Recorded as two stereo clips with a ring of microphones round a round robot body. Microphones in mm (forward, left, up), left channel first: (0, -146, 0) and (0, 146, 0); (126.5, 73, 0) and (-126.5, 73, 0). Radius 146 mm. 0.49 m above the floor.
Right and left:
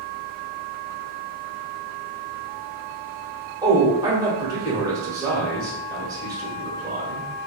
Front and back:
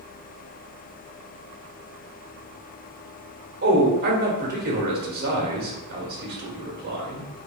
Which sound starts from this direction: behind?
A man speaking, at 3.6 s.